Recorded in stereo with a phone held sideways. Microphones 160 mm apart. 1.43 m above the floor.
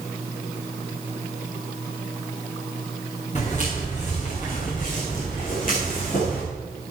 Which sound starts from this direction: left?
Footsteps, at 3.4 s.